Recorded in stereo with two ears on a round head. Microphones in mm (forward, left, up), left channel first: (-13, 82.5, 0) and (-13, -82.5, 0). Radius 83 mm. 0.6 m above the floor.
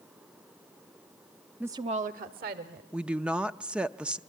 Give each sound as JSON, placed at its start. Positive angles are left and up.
{"t": 1.6, "sound": "a woman speaking", "side_deg": -5, "distance_m": 0.6}
{"t": 2.9, "sound": "a woman speaking", "side_deg": -5, "distance_m": 0.6}